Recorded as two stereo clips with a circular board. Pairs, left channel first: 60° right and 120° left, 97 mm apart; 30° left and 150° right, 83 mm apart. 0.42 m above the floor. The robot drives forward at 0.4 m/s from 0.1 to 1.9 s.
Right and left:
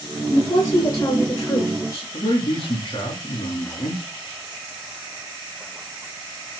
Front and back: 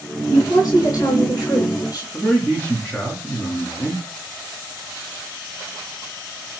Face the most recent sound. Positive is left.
turn(degrees=-30)